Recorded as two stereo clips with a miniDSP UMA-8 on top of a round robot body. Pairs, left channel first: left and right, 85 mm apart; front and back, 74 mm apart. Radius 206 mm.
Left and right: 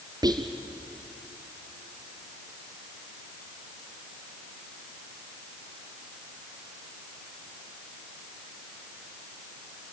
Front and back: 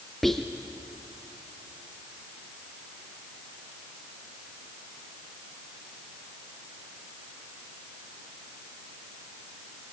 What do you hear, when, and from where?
0.2 s whispering: 85° right, 1.1 m